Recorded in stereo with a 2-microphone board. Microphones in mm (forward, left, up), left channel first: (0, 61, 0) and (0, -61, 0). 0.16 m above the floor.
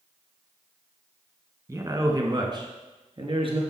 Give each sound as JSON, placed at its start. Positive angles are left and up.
{"t": 1.7, "sound": "a man speaking", "side_deg": -25, "distance_m": 1.3}